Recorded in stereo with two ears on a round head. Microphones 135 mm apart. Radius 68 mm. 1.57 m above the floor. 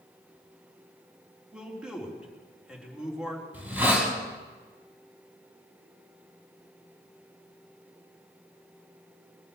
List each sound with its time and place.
1.5 s a man speaking: 5° right (ahead or behind), 4 m
3.5 s a hiss: 15° right (ahead or behind), 5 m